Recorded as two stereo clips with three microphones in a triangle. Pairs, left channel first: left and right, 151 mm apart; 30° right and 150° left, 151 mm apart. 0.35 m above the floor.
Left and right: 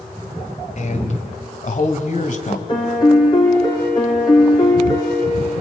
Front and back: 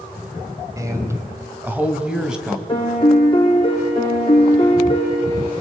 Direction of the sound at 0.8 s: 90° left.